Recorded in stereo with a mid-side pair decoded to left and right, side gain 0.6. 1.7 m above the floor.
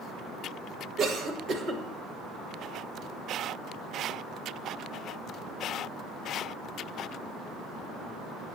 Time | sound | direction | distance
1.0 | a cough | 50° right | 2.5 m